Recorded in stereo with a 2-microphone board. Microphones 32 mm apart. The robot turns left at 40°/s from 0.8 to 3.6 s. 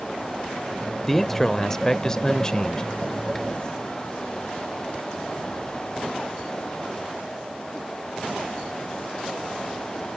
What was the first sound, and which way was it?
A man speaking, 5° left (ahead or behind).